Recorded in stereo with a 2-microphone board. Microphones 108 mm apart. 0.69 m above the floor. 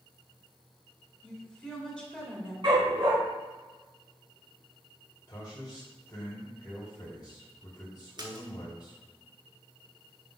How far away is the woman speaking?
About 2.5 m.